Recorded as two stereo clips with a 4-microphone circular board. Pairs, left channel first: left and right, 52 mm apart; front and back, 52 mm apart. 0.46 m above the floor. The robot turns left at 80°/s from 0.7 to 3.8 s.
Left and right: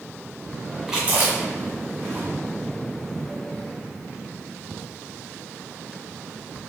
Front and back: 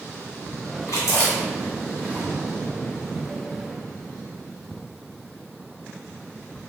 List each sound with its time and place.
0.9 s chewing: 10° right, 1.7 m; by 2.2 s 120° right, 1.7 m